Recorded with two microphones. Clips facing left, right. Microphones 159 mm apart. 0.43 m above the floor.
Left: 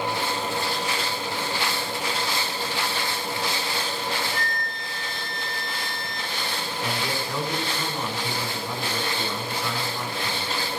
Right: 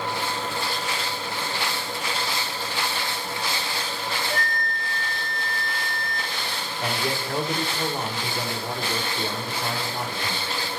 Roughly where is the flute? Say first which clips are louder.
Right 2 dB; right.